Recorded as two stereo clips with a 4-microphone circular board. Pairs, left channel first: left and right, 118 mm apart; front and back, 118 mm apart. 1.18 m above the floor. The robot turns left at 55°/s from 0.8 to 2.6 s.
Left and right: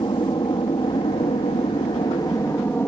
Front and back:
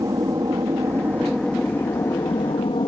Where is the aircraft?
125° left; by 2.9 s 25° left.